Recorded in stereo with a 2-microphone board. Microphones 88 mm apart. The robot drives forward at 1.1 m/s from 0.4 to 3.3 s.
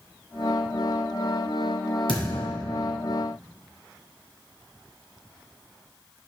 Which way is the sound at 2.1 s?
70° left (ahead or behind).